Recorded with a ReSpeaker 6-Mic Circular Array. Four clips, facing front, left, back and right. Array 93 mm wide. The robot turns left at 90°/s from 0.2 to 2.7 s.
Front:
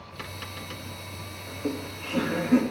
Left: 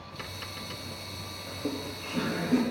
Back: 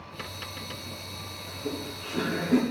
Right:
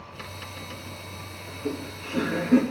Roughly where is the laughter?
Ahead left.